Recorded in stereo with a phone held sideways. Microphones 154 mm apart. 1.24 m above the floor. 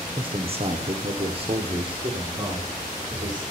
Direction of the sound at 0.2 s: 35° right (ahead or behind).